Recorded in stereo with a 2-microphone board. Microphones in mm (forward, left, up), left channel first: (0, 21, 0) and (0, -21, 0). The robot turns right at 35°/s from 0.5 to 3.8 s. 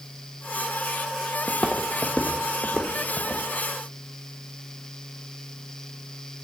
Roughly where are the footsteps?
Left.